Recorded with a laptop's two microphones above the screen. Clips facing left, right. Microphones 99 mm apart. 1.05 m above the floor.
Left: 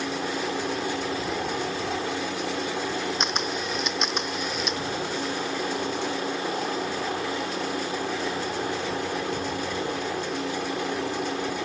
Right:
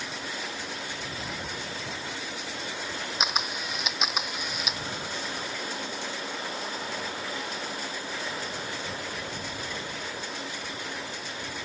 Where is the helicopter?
70° left (ahead or behind).